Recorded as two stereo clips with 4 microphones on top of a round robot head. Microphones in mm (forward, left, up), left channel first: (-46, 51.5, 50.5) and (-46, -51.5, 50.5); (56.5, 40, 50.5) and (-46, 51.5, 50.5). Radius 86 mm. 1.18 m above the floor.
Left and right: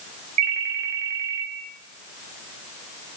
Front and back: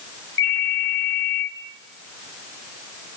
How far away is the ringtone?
About 2 m.